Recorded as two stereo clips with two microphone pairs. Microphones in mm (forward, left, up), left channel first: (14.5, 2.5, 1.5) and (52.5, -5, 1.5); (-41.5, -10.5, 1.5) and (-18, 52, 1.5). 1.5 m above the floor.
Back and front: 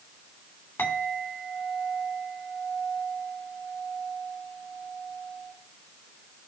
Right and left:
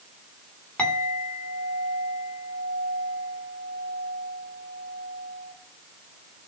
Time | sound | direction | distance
0.8 | a clink | 175° left | 3 m